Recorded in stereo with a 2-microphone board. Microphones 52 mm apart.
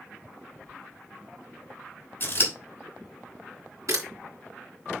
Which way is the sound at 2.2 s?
40° left (ahead or behind).